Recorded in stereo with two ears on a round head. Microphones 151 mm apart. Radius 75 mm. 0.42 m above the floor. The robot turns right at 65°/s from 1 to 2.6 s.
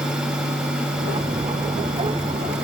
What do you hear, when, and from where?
Only background noise.